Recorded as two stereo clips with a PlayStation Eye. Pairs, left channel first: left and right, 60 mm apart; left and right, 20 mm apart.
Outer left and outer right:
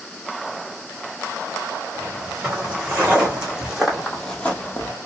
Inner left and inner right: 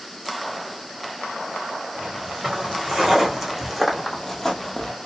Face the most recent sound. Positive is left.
turn(degrees=45)  # may be behind; listen again after turning